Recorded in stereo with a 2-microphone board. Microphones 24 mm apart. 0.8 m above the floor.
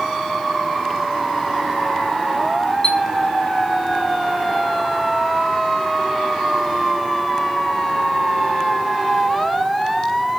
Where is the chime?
40° left (ahead or behind), 1.3 m.